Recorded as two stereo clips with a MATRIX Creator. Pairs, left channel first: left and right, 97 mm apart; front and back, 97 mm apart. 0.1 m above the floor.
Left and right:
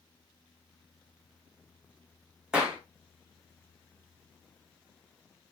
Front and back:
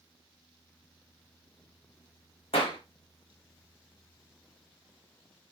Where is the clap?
10° right, 5.5 m.